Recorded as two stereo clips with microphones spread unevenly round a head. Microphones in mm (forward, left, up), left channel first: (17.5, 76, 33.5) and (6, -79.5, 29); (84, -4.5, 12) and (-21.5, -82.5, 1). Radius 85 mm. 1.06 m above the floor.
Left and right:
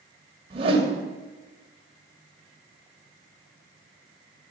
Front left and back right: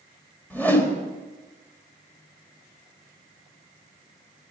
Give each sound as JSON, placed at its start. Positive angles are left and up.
{"t": 0.5, "sound": "a whoosh", "azimuth_deg": -40, "distance_m": 3.0}